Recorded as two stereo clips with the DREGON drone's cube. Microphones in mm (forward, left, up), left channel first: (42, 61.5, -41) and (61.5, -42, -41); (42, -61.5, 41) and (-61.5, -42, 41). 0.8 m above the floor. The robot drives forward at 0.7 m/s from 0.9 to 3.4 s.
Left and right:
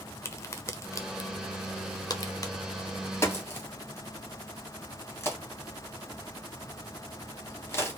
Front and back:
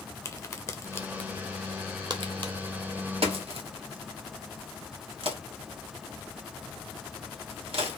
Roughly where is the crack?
Ahead left.